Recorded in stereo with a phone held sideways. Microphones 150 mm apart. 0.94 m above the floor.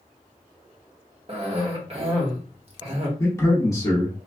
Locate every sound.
1.3 s a cough: 40° right (ahead or behind), 1.2 m
3.2 s a man speaking: 20° left (ahead or behind), 1.1 m